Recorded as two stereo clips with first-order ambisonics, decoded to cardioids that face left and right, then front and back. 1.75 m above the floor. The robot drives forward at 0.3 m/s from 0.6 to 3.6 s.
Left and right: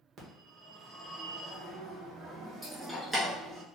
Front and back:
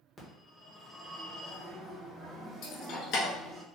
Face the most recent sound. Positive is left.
turn(degrees=0)